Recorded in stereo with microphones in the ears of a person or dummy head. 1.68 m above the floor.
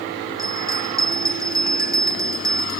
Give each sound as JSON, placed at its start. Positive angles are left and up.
{"t": 0.4, "sound": "a bell", "side_deg": -15}